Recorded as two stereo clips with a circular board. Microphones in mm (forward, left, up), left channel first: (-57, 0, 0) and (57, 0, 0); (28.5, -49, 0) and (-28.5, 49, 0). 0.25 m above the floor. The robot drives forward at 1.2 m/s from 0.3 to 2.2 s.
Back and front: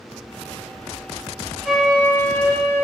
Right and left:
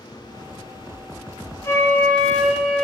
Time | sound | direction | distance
1.6 | a flute | 75° right | 1.4 m